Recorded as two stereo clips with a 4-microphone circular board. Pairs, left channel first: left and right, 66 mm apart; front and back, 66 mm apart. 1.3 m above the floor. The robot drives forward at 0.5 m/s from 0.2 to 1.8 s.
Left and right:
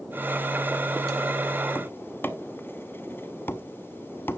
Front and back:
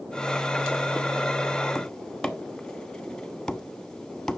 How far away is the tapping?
About 0.8 m.